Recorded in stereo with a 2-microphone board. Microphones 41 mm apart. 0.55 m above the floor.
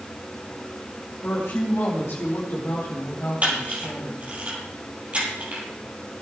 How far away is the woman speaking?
About 4 m.